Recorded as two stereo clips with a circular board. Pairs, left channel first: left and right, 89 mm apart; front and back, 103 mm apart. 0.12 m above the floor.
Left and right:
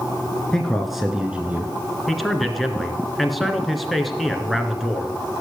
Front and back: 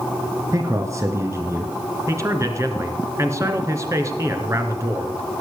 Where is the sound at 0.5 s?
165° left, 1.5 m; by 1.7 s 135° right, 1.5 m.